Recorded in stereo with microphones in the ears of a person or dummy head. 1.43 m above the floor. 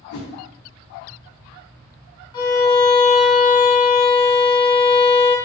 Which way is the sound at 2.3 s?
25° left (ahead or behind).